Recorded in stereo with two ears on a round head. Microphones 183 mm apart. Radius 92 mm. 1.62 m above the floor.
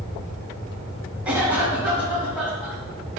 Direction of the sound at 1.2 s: 20° right (ahead or behind).